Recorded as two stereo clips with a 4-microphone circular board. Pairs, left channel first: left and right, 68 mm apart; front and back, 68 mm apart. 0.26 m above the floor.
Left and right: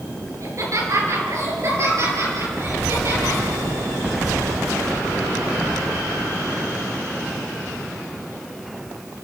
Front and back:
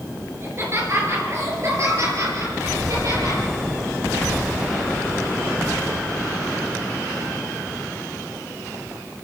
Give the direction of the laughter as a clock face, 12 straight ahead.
4 o'clock.